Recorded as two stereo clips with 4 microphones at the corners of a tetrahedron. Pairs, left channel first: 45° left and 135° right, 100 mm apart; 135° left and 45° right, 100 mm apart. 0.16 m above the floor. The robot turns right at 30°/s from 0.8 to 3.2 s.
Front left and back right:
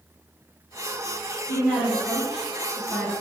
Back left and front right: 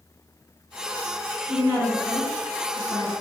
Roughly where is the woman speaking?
Right.